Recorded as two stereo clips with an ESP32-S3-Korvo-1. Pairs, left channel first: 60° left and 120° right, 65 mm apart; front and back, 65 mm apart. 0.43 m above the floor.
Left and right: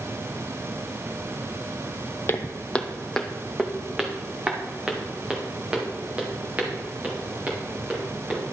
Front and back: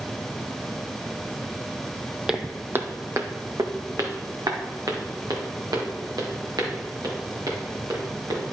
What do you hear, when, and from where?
2.3 s footsteps: 100° left, 0.6 m; by 8.4 s 175° left, 5 m